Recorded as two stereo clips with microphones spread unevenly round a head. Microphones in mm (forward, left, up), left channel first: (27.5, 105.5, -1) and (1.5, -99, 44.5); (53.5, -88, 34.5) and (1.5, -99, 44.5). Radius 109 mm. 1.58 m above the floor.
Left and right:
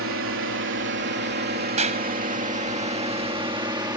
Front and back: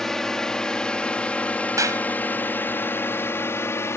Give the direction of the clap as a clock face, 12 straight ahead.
5 o'clock.